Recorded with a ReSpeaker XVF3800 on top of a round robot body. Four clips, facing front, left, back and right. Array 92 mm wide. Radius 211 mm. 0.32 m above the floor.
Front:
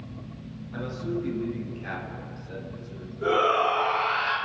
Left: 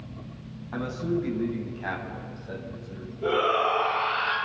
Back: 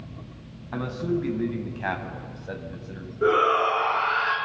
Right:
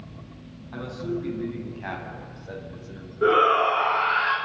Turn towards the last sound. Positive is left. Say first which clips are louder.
# right 5 dB, back 2 dB
turn(degrees=-120)